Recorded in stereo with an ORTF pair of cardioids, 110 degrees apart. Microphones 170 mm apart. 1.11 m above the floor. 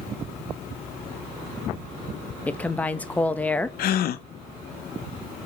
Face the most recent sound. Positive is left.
turn(degrees=65)